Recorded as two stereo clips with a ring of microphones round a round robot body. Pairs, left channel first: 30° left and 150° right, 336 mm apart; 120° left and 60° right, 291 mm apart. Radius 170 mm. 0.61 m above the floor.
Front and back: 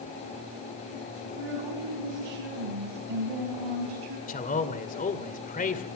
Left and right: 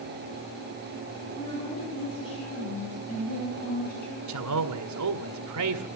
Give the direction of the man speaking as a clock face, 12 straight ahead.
1 o'clock.